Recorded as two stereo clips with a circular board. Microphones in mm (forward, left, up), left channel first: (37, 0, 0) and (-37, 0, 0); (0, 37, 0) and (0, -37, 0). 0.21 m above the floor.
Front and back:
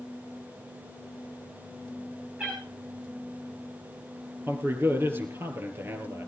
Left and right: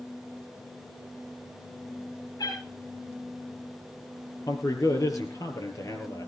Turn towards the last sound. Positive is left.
turn(degrees=125)